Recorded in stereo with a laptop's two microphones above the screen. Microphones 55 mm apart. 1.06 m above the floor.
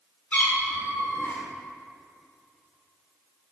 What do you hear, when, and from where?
0.3 s a cat meowing: 25° left (ahead or behind), 1.6 m